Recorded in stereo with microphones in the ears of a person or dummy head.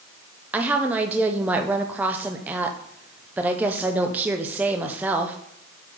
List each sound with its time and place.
0.5 s a woman speaking: 10° right (ahead or behind), 0.6 m